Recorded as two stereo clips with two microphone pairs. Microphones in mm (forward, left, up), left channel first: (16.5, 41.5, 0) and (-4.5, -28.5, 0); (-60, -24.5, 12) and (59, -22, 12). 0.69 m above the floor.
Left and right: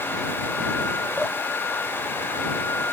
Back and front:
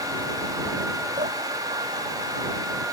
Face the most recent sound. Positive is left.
turn(degrees=-10)